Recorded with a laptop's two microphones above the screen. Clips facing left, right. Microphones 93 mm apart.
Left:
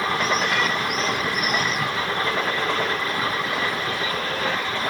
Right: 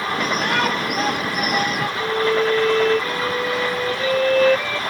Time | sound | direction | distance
0.2 | a shout | 55° right (ahead or behind) | ?
2.0 | a violin | 90° right | ?